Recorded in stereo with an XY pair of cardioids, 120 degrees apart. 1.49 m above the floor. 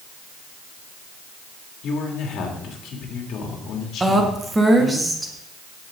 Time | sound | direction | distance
1.8 | a man speaking | 60° left | 2.5 m
4.0 | a woman speaking | 15° right | 1.7 m